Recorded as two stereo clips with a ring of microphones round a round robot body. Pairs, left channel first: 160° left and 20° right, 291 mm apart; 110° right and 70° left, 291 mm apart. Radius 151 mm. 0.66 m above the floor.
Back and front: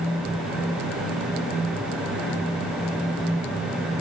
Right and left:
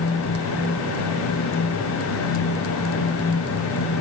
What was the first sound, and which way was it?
Only background noise.